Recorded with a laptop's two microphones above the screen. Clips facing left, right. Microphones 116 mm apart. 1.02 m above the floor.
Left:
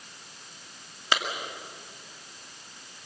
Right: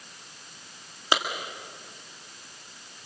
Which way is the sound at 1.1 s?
20° right (ahead or behind).